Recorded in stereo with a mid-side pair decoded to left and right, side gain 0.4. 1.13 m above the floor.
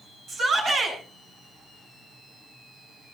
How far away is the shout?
About 9.5 m.